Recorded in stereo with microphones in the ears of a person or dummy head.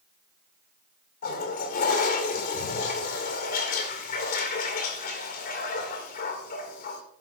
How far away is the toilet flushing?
About 1.8 m.